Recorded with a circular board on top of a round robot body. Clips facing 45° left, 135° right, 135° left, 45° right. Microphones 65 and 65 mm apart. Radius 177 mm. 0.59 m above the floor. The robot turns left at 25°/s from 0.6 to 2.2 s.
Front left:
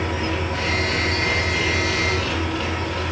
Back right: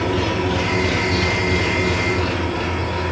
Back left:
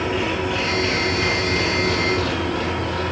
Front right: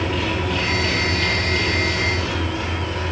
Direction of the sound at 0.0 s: 150° right.